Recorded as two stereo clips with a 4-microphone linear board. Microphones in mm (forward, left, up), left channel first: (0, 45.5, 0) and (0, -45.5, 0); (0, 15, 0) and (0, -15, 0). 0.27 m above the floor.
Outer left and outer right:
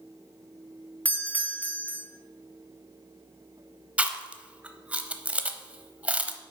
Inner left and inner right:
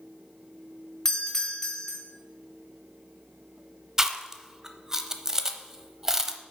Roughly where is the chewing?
Centre.